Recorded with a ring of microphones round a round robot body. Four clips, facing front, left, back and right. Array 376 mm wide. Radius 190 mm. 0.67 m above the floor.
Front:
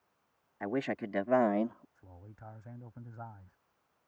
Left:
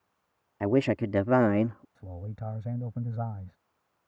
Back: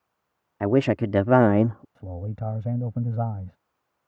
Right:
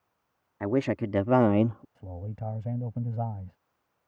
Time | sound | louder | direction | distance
0.6 | a man speaking | left 2 dB, back 13 dB | 170° left | ?
1.9 | a man speaking | right 2 dB, back 19 dB | 170° right | ?